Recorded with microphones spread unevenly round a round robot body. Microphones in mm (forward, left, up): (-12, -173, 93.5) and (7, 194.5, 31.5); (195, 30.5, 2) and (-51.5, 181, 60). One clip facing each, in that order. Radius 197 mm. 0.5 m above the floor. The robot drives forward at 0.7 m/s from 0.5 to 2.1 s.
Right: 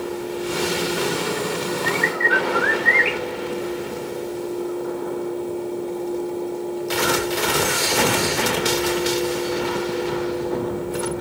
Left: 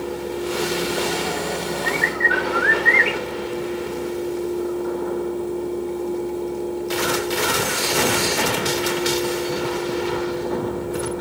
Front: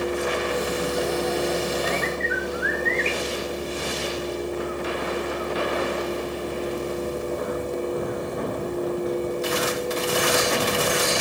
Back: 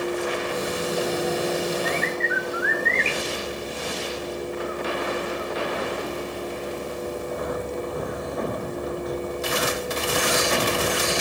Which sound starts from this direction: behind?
A bird, at 1.9 s.